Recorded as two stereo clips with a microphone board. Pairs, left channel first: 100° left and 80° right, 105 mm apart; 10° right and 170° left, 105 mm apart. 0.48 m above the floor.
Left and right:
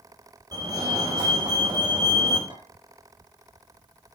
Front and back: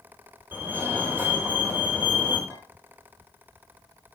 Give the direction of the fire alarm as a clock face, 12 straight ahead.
4 o'clock.